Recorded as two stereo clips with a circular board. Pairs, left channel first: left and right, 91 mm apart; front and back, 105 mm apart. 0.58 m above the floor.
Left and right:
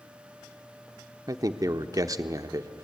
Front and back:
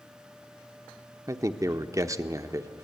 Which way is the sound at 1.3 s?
130° right.